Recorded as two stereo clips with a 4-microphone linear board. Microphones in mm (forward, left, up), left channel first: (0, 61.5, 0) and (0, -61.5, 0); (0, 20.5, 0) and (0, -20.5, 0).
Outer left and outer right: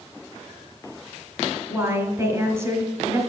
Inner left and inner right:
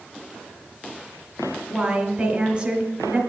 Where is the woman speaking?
25° right (ahead or behind), 1.8 m.